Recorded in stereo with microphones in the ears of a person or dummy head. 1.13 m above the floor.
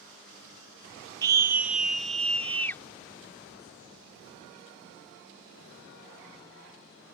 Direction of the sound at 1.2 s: 20° right (ahead or behind).